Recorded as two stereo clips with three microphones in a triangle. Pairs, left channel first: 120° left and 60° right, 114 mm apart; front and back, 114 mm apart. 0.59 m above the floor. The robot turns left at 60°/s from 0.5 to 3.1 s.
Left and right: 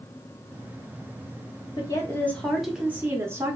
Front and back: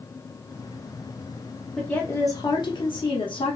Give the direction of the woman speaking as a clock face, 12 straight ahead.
9 o'clock.